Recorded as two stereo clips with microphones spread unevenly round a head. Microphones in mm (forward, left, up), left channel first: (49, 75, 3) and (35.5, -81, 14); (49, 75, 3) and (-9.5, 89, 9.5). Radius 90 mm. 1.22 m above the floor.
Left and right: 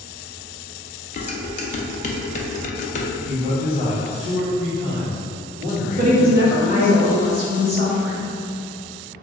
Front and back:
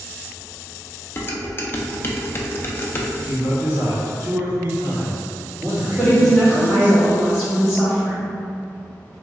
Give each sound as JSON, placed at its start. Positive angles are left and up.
{"t": 1.2, "sound": "dishes clattering", "azimuth_deg": 45, "distance_m": 0.5}
{"t": 3.2, "sound": "a man speaking", "azimuth_deg": 150, "distance_m": 1.3}
{"t": 6.0, "sound": "a woman speaking", "azimuth_deg": -115, "distance_m": 1.0}